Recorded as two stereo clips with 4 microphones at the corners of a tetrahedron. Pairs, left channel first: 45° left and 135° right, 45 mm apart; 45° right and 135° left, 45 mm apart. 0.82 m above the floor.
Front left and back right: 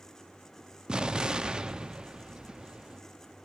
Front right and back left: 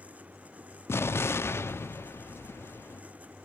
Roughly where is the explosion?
Ahead right.